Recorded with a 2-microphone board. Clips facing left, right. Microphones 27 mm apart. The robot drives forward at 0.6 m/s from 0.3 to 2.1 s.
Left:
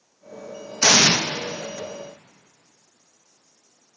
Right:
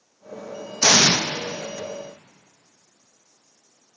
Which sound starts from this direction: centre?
An explosion, at 0.8 s.